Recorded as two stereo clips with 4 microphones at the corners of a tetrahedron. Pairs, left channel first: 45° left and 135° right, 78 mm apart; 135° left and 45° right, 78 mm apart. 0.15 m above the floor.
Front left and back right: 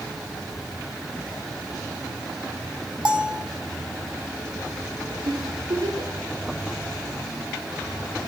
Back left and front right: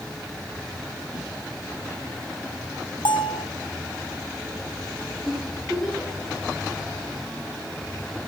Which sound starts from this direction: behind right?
A giggle, at 5.2 s.